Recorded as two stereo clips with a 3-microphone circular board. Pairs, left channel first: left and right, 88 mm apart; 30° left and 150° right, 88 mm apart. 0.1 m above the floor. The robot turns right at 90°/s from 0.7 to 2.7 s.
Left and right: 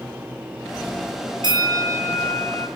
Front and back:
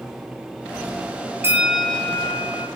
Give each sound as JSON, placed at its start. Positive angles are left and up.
{"t": 1.4, "sound": "a bell", "azimuth_deg": -90, "distance_m": 0.5}